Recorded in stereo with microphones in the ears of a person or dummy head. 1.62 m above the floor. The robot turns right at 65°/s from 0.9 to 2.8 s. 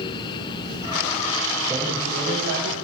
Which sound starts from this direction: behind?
A man speaking, at 1.7 s.